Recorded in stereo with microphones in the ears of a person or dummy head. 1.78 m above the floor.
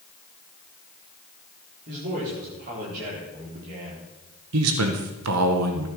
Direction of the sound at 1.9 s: 55° right (ahead or behind).